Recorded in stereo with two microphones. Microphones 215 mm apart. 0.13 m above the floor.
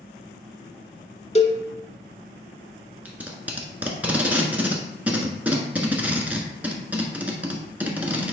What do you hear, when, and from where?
1.4 s a cowbell: 35° left (ahead or behind), 0.8 m
3.0 s tape being pulled: 5° right (ahead or behind), 1.3 m